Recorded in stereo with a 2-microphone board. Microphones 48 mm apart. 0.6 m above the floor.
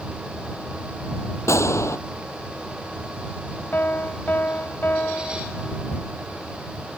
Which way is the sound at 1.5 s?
70° left (ahead or behind).